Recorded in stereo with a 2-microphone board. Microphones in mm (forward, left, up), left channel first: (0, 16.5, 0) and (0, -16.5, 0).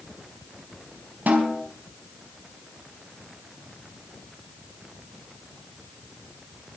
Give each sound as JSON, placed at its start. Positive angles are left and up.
{"t": 1.3, "sound": "a snare drum", "side_deg": -65, "distance_m": 4.5}